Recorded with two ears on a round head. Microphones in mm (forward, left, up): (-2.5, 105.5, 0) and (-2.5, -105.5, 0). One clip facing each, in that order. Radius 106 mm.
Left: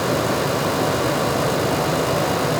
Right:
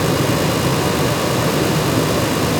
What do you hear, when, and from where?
Only background noise.